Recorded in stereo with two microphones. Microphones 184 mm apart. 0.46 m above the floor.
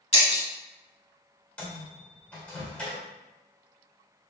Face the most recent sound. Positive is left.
turn(degrees=5)  # may be behind; listen again after turning